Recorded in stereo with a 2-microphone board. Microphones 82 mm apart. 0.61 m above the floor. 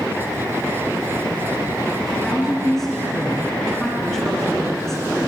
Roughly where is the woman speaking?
Centre.